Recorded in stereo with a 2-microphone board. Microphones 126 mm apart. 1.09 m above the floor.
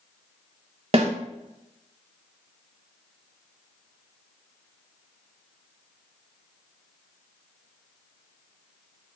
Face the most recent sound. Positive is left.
turn(degrees=-50)  # may be behind; listen again after turning